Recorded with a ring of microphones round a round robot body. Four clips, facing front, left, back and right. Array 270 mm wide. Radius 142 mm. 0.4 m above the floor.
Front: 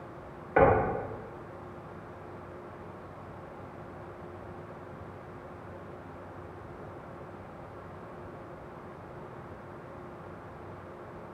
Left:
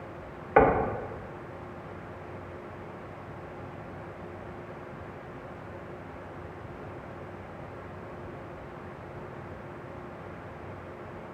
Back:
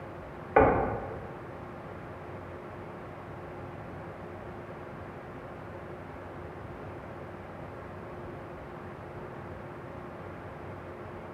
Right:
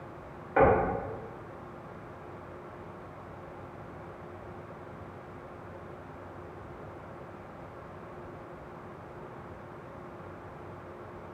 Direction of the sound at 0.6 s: 110° left.